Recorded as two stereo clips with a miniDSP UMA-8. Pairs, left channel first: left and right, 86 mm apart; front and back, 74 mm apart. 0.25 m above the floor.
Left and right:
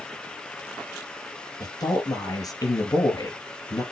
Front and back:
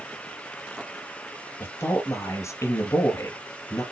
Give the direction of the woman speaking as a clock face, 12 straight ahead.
10 o'clock.